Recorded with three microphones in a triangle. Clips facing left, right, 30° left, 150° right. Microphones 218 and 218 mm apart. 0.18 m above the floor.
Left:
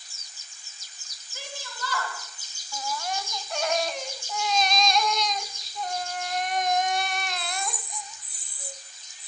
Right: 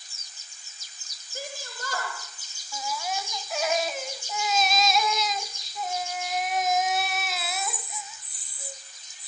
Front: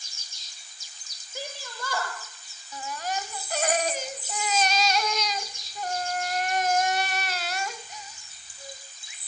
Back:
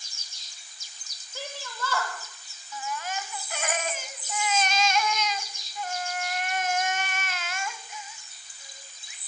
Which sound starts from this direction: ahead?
A baby crying, at 2.7 s.